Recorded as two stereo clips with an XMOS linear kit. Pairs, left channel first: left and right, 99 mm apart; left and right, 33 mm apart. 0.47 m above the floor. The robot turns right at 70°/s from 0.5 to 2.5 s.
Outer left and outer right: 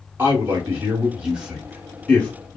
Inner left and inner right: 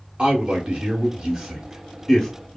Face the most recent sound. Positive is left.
turn(degrees=20)  # may be behind; listen again after turning